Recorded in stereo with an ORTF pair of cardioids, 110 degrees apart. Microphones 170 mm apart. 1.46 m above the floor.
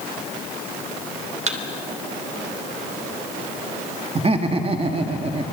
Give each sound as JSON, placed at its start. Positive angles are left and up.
{"t": 1.5, "sound": "a thud", "azimuth_deg": -45, "distance_m": 3.0}
{"t": 4.2, "sound": "laughter", "azimuth_deg": -35, "distance_m": 2.5}